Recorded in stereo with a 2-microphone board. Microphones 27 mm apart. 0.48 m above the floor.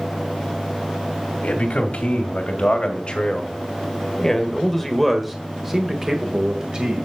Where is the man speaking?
60° left (ahead or behind), 2.5 m; by 7.1 s 35° right (ahead or behind), 2 m.